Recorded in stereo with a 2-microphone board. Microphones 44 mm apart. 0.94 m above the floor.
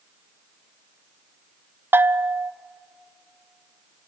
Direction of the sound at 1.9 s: 50° right (ahead or behind).